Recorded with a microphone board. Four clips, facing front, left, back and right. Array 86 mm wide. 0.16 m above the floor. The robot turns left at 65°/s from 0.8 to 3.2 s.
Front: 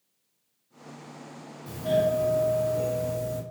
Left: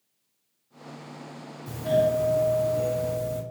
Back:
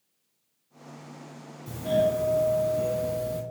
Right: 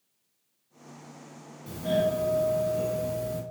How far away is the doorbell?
About 1.7 m.